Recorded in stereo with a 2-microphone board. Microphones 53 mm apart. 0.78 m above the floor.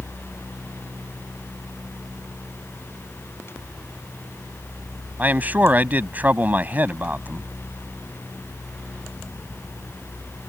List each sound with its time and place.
5.2 s a man speaking: 30° right (ahead or behind)